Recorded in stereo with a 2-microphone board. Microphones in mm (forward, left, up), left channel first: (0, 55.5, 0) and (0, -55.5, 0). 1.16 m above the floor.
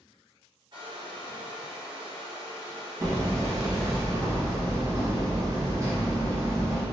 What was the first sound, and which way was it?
A hair dryer, 45° right (ahead or behind).